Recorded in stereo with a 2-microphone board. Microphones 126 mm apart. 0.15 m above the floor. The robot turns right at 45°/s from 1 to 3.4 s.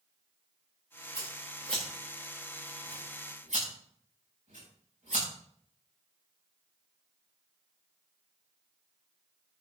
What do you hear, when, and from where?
1.1 s scissors: 30° left (ahead or behind), 8 m; by 5.2 s 70° right (ahead or behind), 8 m